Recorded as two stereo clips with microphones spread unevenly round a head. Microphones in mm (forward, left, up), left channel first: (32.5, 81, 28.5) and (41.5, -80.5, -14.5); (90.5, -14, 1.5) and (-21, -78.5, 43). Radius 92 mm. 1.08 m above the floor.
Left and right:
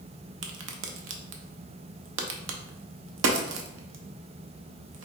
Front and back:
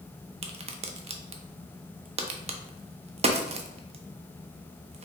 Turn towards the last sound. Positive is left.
turn(degrees=-110)